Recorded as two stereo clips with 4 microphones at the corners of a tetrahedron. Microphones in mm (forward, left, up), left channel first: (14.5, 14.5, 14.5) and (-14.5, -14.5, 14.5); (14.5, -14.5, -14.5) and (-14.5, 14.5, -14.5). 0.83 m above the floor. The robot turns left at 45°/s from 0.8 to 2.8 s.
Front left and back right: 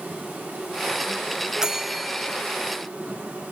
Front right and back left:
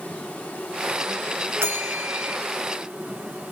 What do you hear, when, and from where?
0.0 s an insect: 100° right, 3.5 m; by 3.5 s 170° left, 3.5 m
1.6 s a bell: 150° left, 0.6 m; by 2.4 s 115° left, 0.6 m